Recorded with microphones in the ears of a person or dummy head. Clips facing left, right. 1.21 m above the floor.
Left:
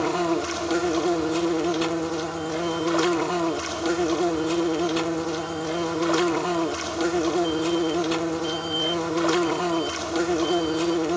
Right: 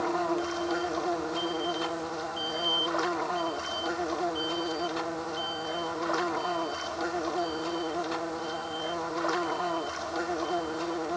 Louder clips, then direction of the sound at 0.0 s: Left 5 dB; 50° left (ahead or behind).